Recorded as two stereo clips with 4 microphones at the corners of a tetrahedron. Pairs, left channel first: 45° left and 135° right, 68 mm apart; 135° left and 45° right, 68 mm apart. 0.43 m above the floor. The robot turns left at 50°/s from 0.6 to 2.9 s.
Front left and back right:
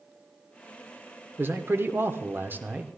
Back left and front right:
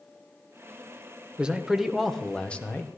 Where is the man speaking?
110° right, 0.9 m; by 3.0 s 175° left, 0.9 m.